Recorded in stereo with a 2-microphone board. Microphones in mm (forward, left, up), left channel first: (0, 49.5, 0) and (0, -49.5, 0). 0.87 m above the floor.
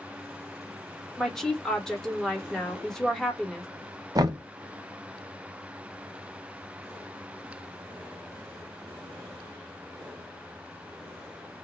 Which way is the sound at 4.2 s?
40° right (ahead or behind).